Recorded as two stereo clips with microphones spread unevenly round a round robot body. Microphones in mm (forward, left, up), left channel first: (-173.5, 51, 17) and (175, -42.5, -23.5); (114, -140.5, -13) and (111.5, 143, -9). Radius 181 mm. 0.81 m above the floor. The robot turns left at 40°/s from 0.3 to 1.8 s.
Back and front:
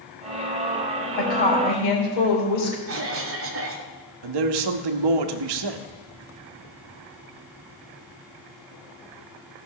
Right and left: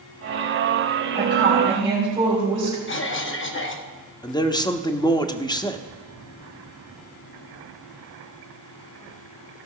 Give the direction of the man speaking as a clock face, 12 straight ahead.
12 o'clock.